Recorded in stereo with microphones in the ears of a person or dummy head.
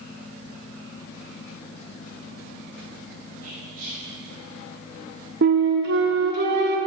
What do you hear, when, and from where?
3.4 s whispering: 50° right (ahead or behind), 4.5 m
5.4 s a flute: 55° right (ahead or behind), 1.3 m